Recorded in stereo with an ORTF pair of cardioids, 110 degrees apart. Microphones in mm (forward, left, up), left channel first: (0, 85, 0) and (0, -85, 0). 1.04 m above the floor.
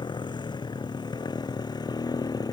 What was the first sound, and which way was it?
A motorcycle, 25° left.